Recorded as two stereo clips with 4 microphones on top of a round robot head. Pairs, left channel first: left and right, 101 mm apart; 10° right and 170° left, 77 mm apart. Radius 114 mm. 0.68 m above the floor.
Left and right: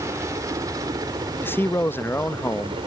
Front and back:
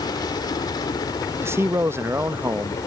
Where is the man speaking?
145° left.